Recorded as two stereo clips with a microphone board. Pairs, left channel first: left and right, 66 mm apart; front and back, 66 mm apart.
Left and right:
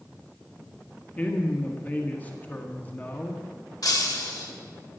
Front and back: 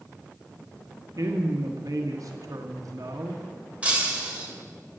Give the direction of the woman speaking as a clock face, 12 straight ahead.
7 o'clock.